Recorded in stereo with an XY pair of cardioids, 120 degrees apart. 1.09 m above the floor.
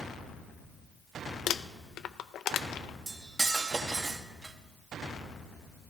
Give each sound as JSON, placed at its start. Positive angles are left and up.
{"t": 1.5, "sound": "crumpling", "azimuth_deg": 60, "distance_m": 0.6}
{"t": 3.1, "sound": "cutlery clinking", "azimuth_deg": -20, "distance_m": 1.0}